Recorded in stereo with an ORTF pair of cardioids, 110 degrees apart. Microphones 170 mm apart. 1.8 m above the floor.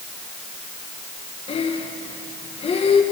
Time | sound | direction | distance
1.5 | breathing | 35° left | 2.5 m